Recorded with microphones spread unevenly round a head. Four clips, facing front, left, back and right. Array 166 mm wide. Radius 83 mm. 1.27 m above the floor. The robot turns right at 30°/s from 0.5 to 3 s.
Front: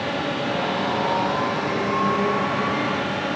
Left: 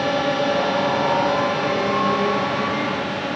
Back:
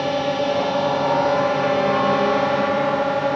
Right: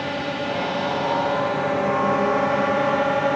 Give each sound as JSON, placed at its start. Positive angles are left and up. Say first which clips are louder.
{"t": 0.0, "sound": "a drone", "louder": "left 6 dB, back 5 dB", "azimuth_deg": 145}